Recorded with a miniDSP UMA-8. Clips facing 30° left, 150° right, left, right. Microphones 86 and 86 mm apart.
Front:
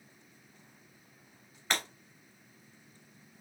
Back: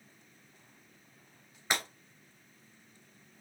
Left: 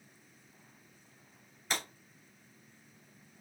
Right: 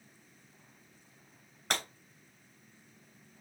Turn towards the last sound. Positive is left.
turn(degrees=-70)